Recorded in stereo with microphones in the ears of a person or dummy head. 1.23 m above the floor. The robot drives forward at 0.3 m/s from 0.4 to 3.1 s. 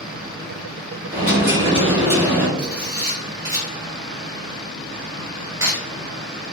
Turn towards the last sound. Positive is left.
turn(degrees=-25)  # may be behind; listen again after turning